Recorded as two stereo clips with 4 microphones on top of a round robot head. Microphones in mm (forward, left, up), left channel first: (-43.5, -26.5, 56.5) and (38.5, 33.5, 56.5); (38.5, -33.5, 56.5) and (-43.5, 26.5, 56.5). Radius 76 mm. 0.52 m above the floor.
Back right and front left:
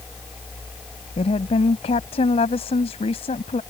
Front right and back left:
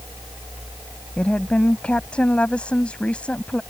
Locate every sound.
1.2 s a woman speaking: 115° right